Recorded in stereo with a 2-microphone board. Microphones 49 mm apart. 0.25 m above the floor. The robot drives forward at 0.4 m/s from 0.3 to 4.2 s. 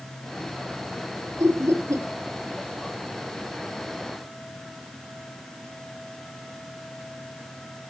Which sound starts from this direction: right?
Laughter, at 1.4 s.